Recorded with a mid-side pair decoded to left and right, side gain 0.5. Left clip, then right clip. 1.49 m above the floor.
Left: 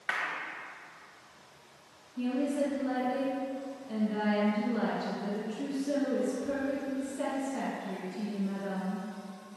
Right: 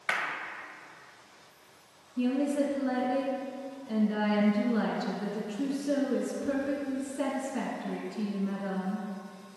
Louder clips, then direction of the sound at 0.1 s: Right 2 dB; 30° right.